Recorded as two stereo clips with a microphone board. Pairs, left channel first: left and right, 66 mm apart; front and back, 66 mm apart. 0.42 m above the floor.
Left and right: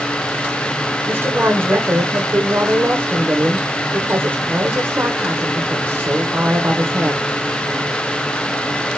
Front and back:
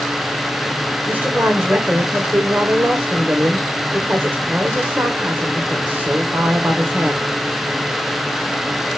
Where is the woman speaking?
130° right, 1.8 m.